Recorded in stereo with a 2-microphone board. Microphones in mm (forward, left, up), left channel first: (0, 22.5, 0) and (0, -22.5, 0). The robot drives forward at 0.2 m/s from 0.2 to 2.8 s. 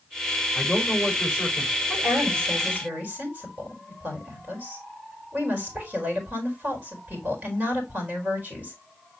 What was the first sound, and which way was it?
A man speaking, 15° left (ahead or behind).